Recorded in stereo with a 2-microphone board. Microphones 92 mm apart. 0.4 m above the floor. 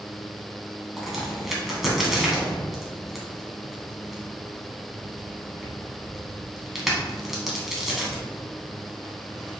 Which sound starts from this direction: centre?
A crack, at 1.0 s.